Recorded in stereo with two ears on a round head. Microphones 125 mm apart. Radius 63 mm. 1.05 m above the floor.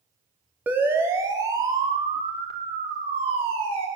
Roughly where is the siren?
Centre.